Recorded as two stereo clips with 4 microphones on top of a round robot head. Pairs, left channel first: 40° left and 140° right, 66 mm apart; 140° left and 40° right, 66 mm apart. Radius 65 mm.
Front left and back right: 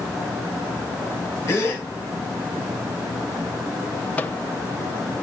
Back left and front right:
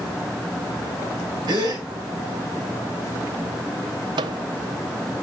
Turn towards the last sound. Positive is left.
turn(degrees=-25)